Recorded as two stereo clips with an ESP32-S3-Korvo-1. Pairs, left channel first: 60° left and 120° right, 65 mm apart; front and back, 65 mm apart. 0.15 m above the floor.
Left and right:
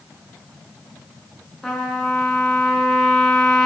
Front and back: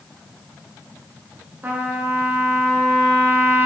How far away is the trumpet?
About 0.7 m.